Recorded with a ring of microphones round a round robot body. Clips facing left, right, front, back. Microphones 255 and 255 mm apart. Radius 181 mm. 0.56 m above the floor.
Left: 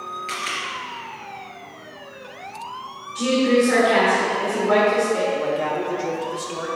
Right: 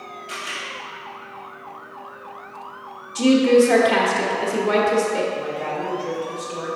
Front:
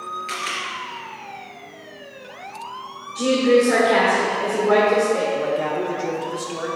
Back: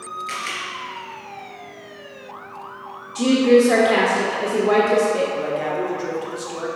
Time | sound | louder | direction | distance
0.3 | a camera shutter | left 1 dB, front 3 dB | 85° left | 2 m
3.1 | a woman speaking | right 4 dB, back 2 dB | 125° right | 1.1 m
5.3 | a man speaking | left 4 dB, front 1 dB | 85° left | 1.5 m